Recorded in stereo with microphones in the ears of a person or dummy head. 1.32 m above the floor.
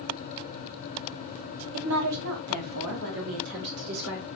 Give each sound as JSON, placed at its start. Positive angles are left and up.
{"t": 1.7, "sound": "a woman speaking", "side_deg": -80, "distance_m": 1.2}